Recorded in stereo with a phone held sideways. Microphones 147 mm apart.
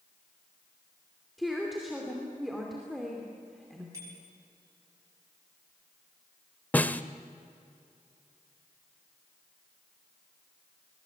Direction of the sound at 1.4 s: Centre (ahead or behind).